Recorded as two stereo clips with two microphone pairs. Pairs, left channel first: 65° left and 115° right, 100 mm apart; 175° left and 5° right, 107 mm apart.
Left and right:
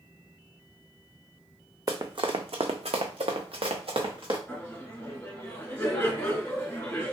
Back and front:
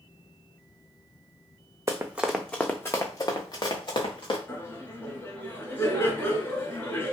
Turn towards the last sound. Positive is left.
turn(degrees=130)